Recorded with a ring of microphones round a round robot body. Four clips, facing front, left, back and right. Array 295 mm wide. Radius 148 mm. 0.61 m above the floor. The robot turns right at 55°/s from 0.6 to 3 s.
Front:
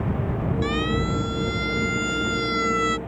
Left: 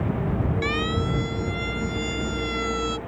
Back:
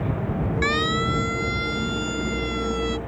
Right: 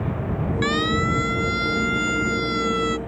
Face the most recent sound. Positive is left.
turn(degrees=-20)